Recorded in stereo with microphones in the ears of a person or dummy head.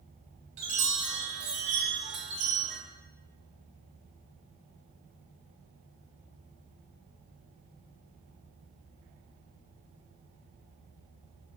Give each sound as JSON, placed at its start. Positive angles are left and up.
{"t": 0.6, "sound": "a chime", "side_deg": -40, "distance_m": 0.8}